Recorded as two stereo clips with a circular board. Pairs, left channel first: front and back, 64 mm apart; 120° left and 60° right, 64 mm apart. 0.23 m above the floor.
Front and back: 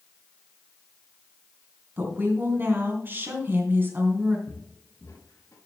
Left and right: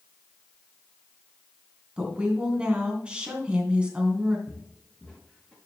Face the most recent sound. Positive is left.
turn(degrees=40)